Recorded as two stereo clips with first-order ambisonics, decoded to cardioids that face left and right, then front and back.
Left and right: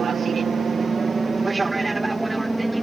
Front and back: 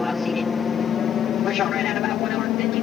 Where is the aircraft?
65° right; by 2.8 s 5° right.